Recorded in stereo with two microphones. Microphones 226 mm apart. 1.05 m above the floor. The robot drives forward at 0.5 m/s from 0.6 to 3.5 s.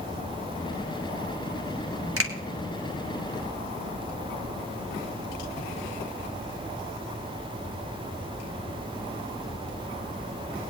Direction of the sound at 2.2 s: 75° right (ahead or behind).